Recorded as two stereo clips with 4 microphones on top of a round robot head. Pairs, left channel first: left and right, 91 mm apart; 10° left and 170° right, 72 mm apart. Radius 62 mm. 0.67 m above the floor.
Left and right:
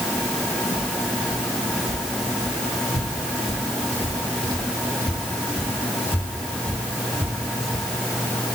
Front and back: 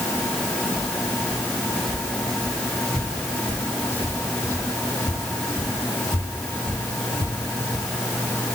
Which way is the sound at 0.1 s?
115° left.